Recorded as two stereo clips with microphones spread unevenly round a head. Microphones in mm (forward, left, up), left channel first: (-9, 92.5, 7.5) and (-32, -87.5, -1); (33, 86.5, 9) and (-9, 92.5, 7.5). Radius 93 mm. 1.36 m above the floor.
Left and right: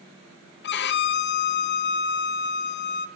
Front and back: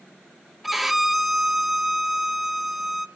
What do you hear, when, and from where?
0.6 s a violin: 85° left, 0.5 m